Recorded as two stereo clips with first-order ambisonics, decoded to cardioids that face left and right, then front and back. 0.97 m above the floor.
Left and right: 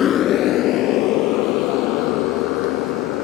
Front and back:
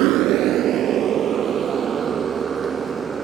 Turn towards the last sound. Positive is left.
turn(degrees=110)